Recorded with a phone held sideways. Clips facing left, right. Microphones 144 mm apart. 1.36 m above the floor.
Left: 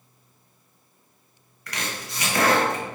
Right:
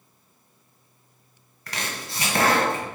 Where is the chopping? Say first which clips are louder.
Even; 30° right (ahead or behind), 1.5 m.